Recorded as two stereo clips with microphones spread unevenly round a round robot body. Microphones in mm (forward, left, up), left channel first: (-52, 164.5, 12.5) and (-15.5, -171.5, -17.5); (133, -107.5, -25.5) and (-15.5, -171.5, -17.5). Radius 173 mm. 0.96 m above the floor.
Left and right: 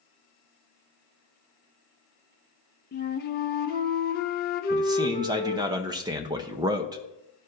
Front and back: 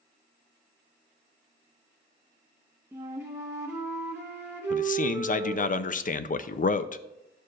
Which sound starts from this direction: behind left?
A flute, at 2.9 s.